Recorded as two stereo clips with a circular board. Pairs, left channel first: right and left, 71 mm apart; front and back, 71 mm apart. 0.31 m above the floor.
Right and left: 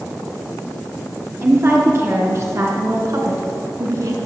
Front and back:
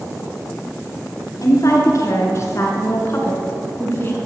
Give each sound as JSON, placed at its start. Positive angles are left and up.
{"t": 1.4, "sound": "a woman speaking", "azimuth_deg": 40, "distance_m": 4.0}